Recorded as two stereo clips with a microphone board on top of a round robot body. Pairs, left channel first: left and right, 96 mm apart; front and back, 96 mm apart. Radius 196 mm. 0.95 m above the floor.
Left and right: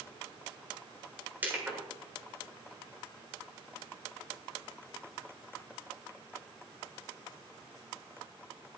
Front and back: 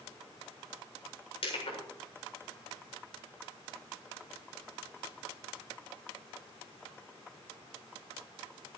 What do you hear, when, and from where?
1.4 s crushing: 20° right, 7.5 m